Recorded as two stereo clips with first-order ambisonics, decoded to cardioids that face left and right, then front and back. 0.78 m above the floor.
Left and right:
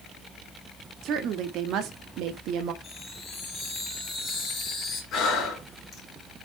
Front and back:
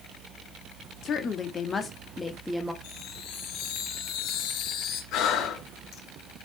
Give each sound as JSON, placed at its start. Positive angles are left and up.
{"t": 1.0, "sound": "a woman speaking", "azimuth_deg": -50, "distance_m": 1.7}
{"t": 2.8, "sound": "a chime", "azimuth_deg": 25, "distance_m": 3.0}
{"t": 5.1, "sound": "breathing", "azimuth_deg": 40, "distance_m": 4.5}